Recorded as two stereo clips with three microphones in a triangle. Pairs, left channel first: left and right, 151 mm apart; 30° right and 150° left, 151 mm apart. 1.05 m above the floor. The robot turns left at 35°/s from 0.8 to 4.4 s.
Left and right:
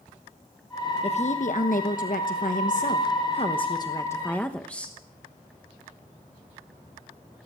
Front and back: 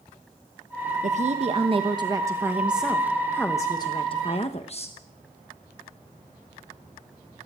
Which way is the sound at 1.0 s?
125° left.